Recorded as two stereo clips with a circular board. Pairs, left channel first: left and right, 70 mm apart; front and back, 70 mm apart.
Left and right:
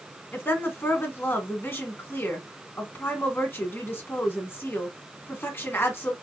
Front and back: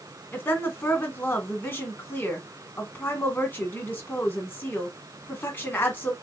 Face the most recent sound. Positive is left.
turn(degrees=45)